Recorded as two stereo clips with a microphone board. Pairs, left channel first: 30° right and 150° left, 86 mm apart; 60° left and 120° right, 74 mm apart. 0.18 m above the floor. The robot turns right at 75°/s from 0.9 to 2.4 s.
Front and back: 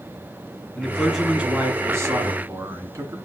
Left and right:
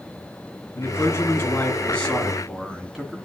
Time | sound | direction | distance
0.8 | a man speaking | 45° left | 2 m